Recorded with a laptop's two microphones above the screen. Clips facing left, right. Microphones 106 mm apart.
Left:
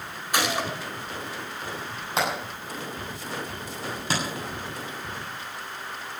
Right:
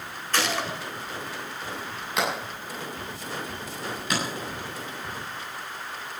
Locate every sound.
0.3 s a gunshot: 15° left (ahead or behind), 2 m
2.2 s hammering: 30° left (ahead or behind), 7.5 m